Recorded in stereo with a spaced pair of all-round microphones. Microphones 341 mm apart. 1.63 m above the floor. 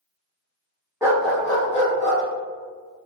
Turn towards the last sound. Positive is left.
turn(degrees=35)  # may be behind; listen again after turning